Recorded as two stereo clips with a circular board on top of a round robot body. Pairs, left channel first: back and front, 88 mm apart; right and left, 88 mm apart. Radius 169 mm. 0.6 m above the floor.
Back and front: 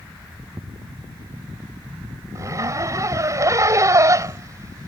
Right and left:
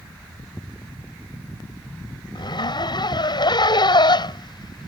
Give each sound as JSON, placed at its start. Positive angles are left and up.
{"t": 2.4, "sound": "a zipper", "azimuth_deg": -55}